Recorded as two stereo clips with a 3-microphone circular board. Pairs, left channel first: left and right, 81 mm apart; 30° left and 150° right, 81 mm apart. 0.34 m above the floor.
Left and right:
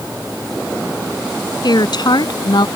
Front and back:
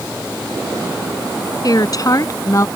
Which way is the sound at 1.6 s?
65° left.